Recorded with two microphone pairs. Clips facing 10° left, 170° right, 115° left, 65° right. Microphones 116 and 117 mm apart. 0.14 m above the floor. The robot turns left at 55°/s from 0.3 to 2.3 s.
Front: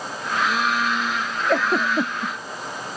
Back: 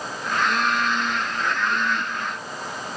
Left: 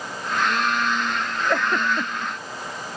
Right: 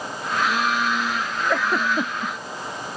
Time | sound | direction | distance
1.5 | a giggle | 30° left | ?